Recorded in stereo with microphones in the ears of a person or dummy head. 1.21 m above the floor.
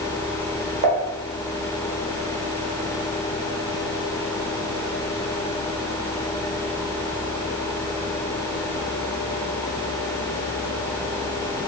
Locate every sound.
0.8 s dishes clattering: 45° right (ahead or behind), 0.8 m